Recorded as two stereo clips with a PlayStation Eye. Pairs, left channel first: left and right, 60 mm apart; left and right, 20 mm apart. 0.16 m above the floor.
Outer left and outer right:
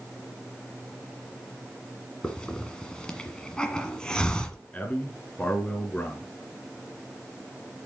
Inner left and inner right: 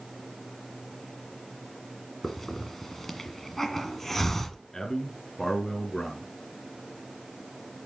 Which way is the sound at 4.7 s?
25° left (ahead or behind).